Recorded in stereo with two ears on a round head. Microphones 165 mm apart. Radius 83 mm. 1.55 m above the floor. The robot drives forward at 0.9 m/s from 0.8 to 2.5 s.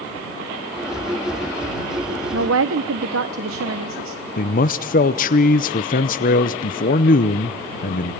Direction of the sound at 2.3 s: 80° right.